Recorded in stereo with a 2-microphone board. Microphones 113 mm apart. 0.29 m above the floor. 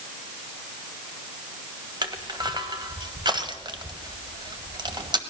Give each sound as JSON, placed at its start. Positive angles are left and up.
{"t": 2.0, "sound": "crushing", "side_deg": -40, "distance_m": 1.3}